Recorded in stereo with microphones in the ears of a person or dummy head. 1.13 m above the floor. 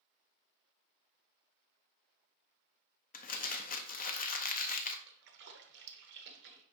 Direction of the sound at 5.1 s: 60° right (ahead or behind).